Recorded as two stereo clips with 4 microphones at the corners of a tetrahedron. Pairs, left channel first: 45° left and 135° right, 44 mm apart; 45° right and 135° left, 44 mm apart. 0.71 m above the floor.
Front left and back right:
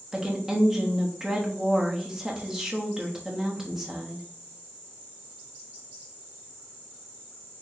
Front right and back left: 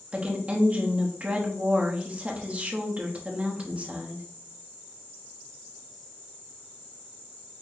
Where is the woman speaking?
155° left, 1.1 m.